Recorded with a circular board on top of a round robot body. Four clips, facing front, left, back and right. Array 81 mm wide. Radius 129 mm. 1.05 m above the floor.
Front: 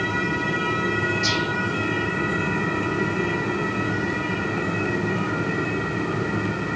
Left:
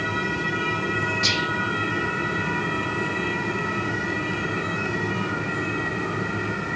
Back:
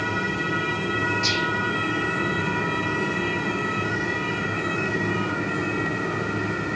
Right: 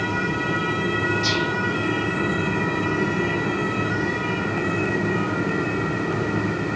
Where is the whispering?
95° left, 0.8 m.